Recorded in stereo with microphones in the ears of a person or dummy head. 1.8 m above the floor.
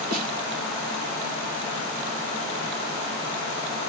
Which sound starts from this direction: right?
A snare drum, at 0.1 s.